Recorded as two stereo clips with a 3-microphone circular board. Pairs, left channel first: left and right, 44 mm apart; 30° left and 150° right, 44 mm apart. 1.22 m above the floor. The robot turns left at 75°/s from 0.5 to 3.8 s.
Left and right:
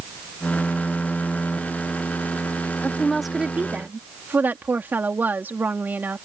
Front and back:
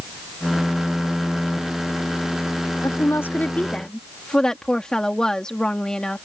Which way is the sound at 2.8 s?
30° left.